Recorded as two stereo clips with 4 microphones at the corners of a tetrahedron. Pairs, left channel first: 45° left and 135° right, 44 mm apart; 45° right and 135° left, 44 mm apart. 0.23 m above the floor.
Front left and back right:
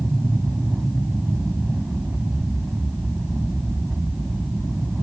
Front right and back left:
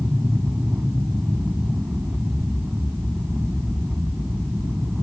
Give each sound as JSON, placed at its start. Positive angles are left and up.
{"t": 0.0, "sound": "an aircraft", "azimuth_deg": 160}